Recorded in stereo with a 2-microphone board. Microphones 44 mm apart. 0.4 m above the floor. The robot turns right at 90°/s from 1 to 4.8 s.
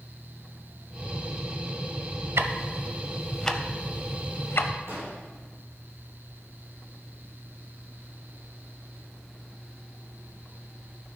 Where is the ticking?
80° right, 0.5 m; by 4.7 s 55° left (ahead or behind), 0.5 m.